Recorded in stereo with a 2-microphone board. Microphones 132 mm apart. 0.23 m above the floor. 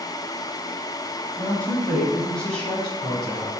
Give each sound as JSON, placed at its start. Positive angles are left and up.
{"t": 1.4, "sound": "a woman speaking", "side_deg": 15, "distance_m": 1.0}